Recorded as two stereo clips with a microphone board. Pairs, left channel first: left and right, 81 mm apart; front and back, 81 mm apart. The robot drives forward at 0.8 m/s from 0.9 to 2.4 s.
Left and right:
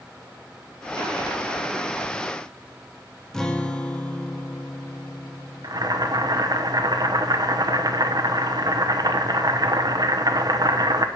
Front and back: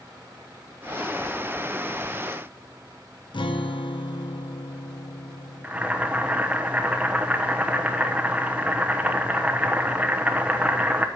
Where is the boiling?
105° right, 0.8 m.